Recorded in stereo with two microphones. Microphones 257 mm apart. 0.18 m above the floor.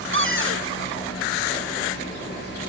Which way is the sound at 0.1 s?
55° right (ahead or behind).